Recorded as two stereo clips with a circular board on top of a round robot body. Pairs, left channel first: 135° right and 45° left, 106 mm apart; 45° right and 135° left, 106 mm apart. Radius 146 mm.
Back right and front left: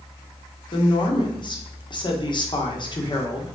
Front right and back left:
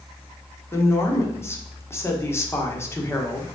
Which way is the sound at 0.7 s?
105° right.